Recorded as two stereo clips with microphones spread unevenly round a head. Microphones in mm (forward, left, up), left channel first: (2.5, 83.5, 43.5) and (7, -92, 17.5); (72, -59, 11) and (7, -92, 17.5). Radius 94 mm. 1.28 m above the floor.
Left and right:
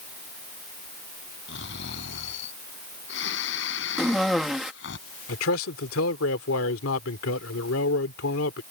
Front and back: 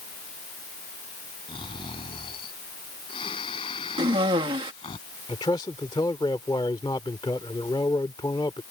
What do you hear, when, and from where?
1.5 s snoring: 70° left
4.0 s a cough: straight behind
5.3 s a man speaking: 90° left